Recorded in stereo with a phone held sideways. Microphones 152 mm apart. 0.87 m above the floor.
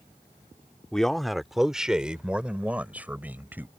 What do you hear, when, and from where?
0.9 s a man speaking: 5° left (ahead or behind); by 3.7 s 10° right (ahead or behind)